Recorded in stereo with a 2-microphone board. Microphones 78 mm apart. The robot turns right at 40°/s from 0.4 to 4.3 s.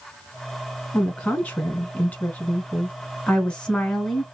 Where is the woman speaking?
10° left (ahead or behind), 1.0 m; by 4.2 s 5° left (ahead or behind), 1.0 m.